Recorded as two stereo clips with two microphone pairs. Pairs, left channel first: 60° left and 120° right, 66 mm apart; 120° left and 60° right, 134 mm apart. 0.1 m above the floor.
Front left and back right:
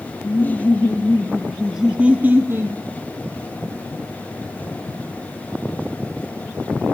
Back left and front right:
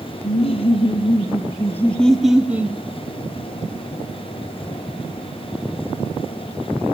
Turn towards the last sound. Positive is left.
turn(degrees=-120)